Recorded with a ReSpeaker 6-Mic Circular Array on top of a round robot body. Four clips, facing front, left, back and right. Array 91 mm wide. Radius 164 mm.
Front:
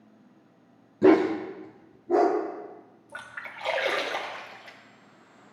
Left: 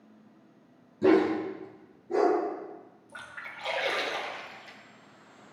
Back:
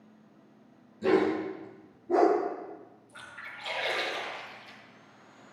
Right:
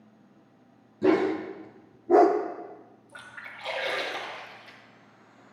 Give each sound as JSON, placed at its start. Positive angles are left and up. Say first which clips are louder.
{"t": 1.0, "sound": "a dog barking", "louder": "left 1 dB, front 6 dB", "azimuth_deg": 5, "distance_m": 1.0}
{"t": 3.1, "sound": "a splash", "louder": "left 1 dB, front 6 dB", "azimuth_deg": 5, "distance_m": 1.4}